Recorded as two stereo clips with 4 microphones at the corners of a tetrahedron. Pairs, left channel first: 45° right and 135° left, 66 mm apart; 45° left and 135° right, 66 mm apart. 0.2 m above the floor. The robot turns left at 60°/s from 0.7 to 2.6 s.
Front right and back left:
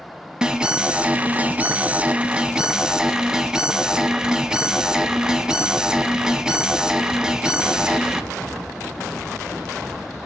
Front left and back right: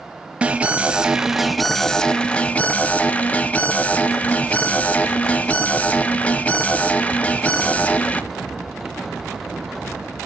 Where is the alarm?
170° right, 0.7 m; by 8.2 s 75° left, 0.7 m.